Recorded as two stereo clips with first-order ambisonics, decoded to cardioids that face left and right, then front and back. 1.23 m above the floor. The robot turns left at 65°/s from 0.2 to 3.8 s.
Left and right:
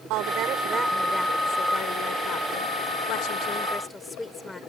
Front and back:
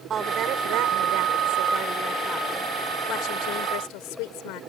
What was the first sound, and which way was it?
A woman speaking, 115° right.